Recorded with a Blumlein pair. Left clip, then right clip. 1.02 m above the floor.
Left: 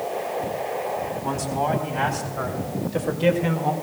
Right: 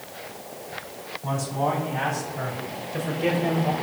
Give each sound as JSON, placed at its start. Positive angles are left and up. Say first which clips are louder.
{"t": 1.2, "sound": "a man speaking", "louder": "right 1 dB", "azimuth_deg": 15, "distance_m": 4.0}